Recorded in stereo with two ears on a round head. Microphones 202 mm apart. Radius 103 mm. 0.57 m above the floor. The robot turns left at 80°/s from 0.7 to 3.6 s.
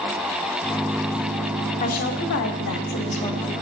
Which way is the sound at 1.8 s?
140° left.